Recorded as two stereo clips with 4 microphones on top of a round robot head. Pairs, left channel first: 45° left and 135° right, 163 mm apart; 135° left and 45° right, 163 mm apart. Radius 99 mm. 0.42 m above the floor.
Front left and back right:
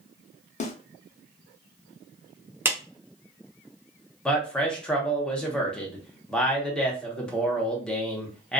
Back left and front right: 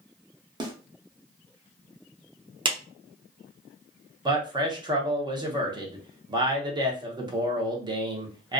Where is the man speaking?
35° right, 0.9 m.